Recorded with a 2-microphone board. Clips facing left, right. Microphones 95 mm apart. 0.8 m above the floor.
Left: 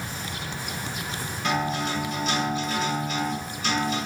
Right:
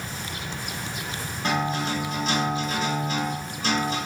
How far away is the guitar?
About 1.2 m.